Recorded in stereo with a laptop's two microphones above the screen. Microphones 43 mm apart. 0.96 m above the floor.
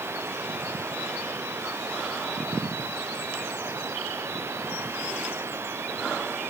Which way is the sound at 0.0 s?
85° right.